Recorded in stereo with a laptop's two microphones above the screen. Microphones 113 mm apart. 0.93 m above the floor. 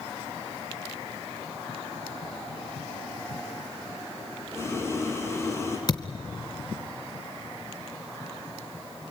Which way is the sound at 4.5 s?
25° left (ahead or behind).